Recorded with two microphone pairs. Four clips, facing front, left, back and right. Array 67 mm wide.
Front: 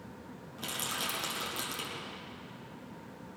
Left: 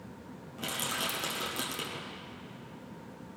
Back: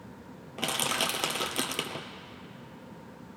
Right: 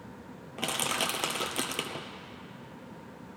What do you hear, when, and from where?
0.6 s crushing: 140° right, 1.2 m